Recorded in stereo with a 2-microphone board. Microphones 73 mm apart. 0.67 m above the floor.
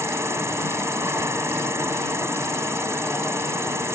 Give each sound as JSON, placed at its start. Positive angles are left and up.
{"t": 0.0, "sound": "an insect", "side_deg": -35}